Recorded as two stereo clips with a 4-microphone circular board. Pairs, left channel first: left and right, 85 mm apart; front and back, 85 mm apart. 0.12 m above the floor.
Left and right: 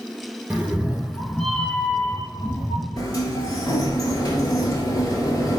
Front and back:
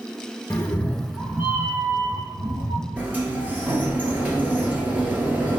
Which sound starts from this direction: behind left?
A sliding door, at 3.0 s.